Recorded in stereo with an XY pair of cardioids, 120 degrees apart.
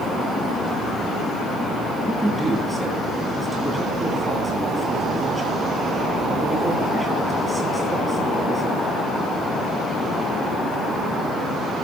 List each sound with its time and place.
2.0 s a man speaking: 5° right, 9.5 m